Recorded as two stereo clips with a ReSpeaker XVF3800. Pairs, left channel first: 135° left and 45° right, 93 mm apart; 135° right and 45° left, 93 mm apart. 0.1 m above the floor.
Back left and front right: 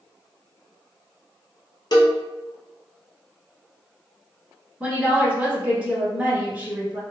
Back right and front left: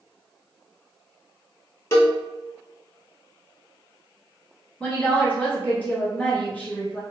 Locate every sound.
1.9 s a cowbell: 165° left, 0.7 m
4.8 s a woman speaking: 100° right, 1.2 m